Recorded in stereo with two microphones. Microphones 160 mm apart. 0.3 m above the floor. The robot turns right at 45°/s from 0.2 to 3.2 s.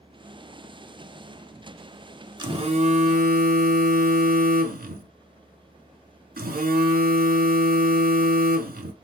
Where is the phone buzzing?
155° right, 0.6 m; by 8.9 s 115° right, 0.6 m.